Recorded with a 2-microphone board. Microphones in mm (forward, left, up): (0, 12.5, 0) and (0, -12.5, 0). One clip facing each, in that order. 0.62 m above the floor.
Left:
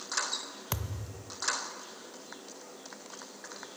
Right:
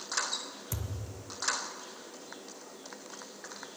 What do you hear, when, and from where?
0.7 s a thud: 55° left (ahead or behind), 0.7 m